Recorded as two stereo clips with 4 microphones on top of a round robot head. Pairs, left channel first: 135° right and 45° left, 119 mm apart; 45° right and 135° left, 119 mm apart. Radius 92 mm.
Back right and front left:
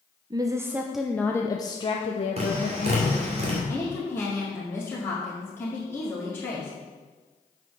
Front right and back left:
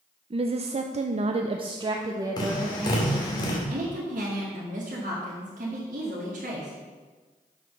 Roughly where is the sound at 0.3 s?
Left.